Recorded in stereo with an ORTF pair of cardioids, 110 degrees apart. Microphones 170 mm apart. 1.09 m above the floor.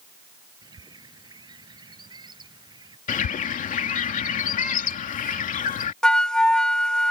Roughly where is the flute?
Ahead.